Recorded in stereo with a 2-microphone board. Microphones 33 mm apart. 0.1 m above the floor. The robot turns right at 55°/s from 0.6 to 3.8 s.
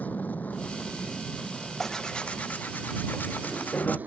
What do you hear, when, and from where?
0.0 s an aircraft: 105° left; by 4.1 s 80° right
1.8 s tearing paper: 5° left; by 4.0 s 115° left